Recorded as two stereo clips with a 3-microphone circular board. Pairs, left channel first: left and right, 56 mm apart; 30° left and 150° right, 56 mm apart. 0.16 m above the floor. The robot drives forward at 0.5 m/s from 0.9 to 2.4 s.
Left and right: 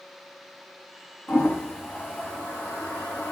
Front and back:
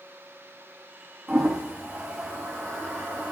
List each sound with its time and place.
1.3 s a toilet flushing: 130° left, 2.5 m; by 3.3 s 140° left, 3 m